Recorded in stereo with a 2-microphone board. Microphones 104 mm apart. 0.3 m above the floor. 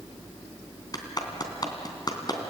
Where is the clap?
40° left (ahead or behind), 3 m.